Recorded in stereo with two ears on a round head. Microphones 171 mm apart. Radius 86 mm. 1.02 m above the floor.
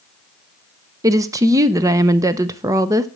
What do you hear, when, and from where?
1.0 s a woman speaking: 15° right (ahead or behind), 0.5 m